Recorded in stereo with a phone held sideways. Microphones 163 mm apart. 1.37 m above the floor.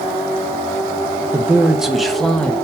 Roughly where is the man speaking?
Centre.